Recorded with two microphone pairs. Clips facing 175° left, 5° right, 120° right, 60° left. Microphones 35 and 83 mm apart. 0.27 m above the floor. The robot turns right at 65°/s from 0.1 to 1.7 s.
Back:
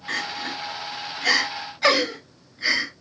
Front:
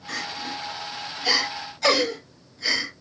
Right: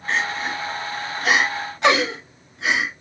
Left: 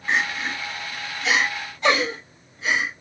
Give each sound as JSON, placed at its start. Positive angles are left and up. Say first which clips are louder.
{"t": 0.1, "sound": "crying", "louder": "back 3 dB, even", "azimuth_deg": 125, "distance_m": 1.6}